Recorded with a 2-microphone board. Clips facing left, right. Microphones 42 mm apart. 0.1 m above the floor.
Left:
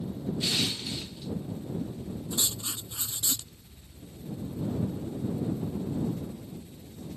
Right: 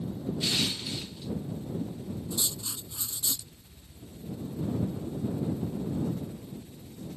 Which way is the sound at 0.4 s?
Centre (ahead or behind).